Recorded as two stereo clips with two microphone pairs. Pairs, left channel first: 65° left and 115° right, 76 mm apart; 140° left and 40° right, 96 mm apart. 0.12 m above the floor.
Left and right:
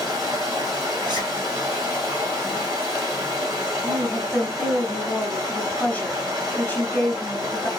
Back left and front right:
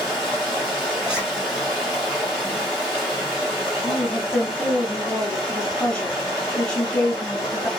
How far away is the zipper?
About 1.1 m.